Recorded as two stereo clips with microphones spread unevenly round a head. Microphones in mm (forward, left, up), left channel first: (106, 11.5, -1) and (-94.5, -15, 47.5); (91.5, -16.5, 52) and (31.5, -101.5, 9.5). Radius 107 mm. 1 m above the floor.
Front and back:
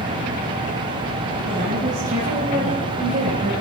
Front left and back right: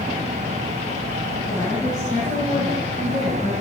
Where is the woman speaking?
140° left, 7 m; by 3.5 s 125° left, 7 m.